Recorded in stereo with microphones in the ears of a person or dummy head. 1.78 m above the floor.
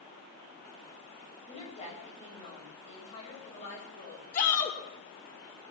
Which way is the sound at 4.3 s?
45° left (ahead or behind).